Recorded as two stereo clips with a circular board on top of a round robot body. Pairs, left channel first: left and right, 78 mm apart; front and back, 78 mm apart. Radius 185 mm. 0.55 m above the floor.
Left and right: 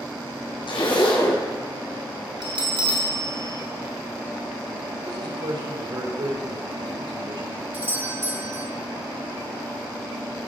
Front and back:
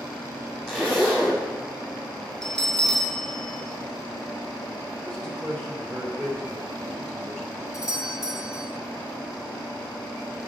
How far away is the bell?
About 3.5 m.